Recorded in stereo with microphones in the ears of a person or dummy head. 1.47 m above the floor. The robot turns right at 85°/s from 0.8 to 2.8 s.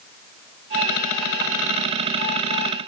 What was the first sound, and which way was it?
Only background noise.